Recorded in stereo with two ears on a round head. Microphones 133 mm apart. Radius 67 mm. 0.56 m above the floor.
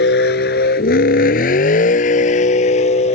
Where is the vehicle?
85° left; by 3.1 s 45° left (ahead or behind).